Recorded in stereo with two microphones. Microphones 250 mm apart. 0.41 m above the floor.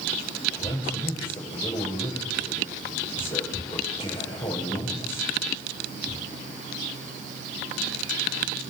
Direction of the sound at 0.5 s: 20° left (ahead or behind).